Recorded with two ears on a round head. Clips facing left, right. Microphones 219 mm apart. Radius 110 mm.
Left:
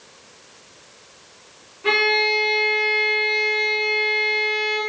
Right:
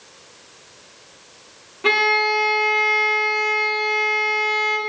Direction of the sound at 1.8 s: 65° right (ahead or behind).